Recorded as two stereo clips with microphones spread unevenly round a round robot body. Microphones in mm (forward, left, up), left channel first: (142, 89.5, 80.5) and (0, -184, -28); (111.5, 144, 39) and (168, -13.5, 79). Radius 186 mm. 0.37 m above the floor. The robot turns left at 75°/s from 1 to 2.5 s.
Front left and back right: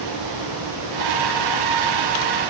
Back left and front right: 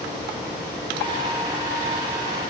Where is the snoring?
I don't hear snoring.